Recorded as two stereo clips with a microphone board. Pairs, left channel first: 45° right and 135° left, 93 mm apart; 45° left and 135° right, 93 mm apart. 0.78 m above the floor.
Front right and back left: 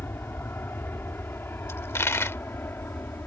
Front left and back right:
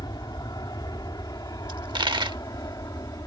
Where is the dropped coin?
105° right.